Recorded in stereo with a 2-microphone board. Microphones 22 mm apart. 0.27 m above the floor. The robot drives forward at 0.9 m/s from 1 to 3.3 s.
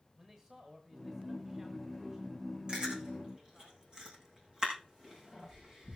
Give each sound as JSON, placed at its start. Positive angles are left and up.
{"t": 0.2, "sound": "a man speaking", "side_deg": -25, "distance_m": 2.0}
{"t": 2.7, "sound": "chewing", "side_deg": -45, "distance_m": 6.0}